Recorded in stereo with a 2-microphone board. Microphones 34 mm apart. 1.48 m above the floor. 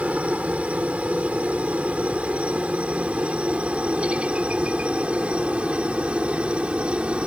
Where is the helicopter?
45° right (ahead or behind); by 7.3 s 35° right (ahead or behind).